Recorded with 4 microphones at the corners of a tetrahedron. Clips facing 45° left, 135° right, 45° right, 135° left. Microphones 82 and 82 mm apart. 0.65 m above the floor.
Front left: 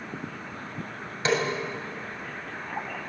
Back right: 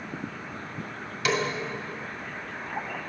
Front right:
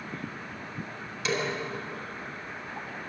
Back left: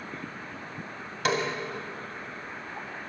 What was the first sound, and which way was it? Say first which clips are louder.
A snare drum: front left 1 dB, back left 3 dB; 105° left.